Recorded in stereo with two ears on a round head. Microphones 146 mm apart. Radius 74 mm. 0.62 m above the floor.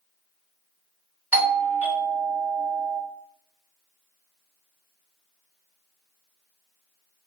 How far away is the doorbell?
About 1.1 m.